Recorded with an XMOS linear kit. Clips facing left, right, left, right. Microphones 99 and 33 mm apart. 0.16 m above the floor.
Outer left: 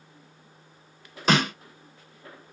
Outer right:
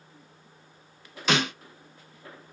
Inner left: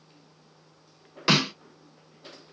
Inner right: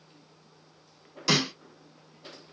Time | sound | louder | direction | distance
1.3 | a snare drum | outer left 3 dB, inner left 3 dB | 40° left (ahead or behind) | 0.7 m